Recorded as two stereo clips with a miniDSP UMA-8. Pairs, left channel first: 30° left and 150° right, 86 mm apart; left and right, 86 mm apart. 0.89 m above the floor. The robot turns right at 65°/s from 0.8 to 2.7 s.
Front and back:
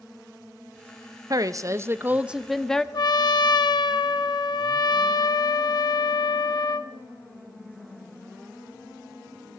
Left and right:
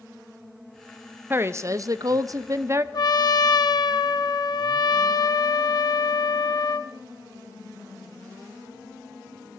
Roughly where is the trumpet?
Ahead left.